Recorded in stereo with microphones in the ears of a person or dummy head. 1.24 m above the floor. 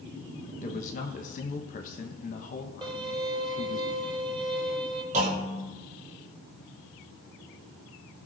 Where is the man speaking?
45° left (ahead or behind), 1.2 m.